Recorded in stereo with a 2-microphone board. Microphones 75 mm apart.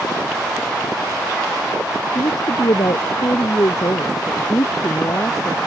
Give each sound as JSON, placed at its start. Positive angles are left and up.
{"t": 2.1, "sound": "a woman speaking", "side_deg": 65}